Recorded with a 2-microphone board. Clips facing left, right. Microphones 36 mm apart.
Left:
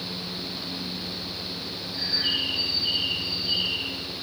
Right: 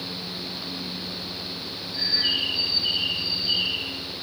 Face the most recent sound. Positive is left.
turn(degrees=-40)  # may be behind; listen again after turning